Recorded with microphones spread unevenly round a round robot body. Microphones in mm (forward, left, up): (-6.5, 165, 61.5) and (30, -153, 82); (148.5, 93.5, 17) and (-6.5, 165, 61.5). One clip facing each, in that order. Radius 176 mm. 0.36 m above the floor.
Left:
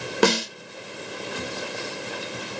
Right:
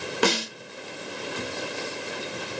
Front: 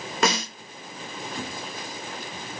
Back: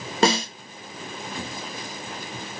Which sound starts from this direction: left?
A snare drum, at 0.2 s.